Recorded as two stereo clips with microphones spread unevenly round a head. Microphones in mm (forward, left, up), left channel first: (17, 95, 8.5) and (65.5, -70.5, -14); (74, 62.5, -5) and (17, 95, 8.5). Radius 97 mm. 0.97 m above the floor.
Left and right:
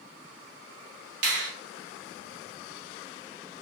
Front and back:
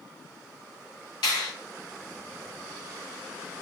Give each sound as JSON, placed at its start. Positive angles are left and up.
{"t": 1.2, "sound": "a finger snap", "azimuth_deg": -70, "distance_m": 1.6}